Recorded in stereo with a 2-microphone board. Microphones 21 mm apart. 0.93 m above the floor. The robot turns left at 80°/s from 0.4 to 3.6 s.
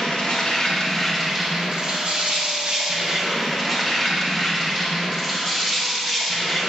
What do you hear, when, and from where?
0.0 s an insect: 65° left, 0.7 m; by 6.7 s 170° left, 0.7 m